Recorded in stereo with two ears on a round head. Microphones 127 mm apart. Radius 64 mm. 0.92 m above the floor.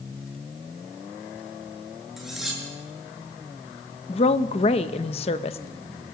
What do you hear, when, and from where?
2.2 s cutlery clinking: 5° right (ahead or behind), 8 m
4.1 s a woman speaking: 45° left (ahead or behind), 1.1 m